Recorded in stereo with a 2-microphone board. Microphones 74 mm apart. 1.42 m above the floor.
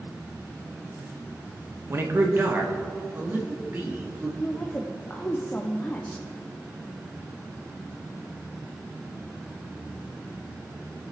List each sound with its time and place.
1.9 s a man speaking: 35° right (ahead or behind), 1.2 m; by 4.3 s 25° right (ahead or behind), 3 m
4.4 s a woman speaking: 20° left (ahead or behind), 0.8 m